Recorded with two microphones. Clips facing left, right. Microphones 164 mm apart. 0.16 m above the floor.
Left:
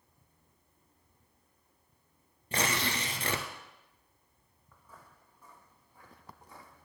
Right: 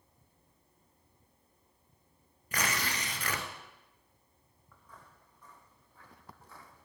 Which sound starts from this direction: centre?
Footsteps, at 4.7 s.